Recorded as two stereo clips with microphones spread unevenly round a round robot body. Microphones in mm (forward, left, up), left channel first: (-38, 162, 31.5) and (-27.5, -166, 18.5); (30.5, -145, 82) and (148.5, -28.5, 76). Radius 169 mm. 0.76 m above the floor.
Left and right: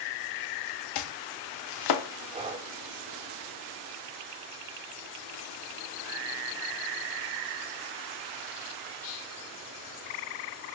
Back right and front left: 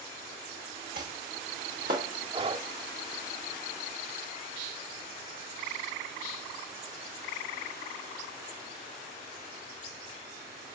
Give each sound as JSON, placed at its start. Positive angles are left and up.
{"t": 0.9, "sound": "chopping", "azimuth_deg": 110, "distance_m": 0.6}
{"t": 2.3, "sound": "breathing", "azimuth_deg": -15, "distance_m": 0.6}